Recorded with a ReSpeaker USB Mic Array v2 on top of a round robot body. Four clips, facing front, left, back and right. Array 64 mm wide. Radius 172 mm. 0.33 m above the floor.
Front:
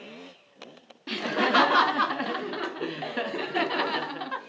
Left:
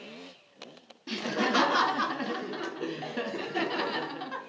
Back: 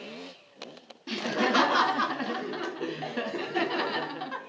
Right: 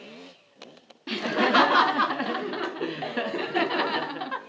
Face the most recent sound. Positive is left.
turn(degrees=-55)